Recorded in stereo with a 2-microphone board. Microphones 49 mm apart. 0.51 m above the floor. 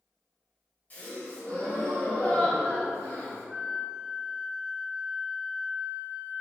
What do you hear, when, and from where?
0.9 s a gasp: 35° left (ahead or behind), 1.7 m
3.5 s a flute: 20° right (ahead or behind), 1.0 m